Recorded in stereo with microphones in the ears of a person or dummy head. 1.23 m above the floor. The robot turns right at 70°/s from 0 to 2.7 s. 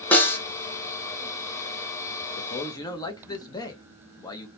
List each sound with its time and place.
0.1 s a snare drum: 10° left (ahead or behind), 0.6 m; by 0.4 s 15° left (ahead or behind), 0.6 m
2.4 s a man speaking: 45° left (ahead or behind), 0.6 m; by 4.5 s 25° left (ahead or behind), 0.6 m